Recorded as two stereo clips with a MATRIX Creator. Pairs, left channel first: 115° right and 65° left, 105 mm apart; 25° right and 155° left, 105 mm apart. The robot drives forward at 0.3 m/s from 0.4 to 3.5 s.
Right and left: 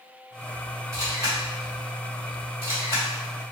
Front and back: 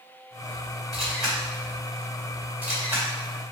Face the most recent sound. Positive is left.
turn(degrees=115)